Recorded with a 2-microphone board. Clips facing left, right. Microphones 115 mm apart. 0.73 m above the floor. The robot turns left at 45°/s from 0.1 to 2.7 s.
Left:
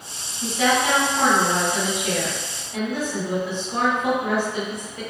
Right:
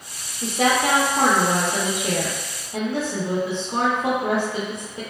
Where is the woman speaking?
45° right, 0.6 m; by 5.0 s 150° right, 0.6 m.